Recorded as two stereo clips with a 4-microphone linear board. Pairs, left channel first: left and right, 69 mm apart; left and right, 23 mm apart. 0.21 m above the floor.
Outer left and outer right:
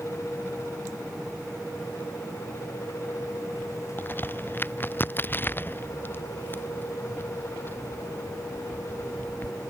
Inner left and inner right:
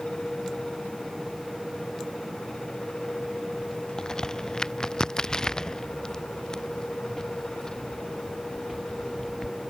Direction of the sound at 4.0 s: 30° left (ahead or behind).